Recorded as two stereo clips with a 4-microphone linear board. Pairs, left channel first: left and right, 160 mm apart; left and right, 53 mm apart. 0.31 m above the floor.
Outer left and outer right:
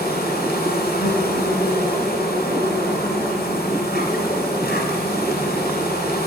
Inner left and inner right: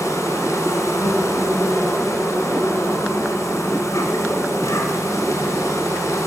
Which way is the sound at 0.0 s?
75° left (ahead or behind).